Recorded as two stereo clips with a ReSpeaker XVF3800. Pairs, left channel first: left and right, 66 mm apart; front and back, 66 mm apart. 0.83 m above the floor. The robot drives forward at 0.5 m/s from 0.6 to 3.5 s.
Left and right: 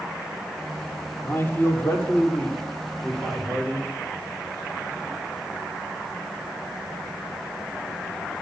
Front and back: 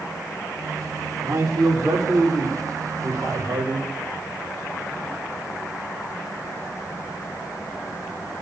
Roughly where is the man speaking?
Behind left.